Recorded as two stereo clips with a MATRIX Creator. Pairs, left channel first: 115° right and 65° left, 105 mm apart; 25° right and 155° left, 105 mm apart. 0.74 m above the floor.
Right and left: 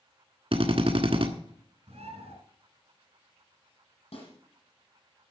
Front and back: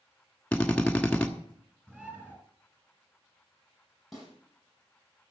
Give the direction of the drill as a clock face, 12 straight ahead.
10 o'clock.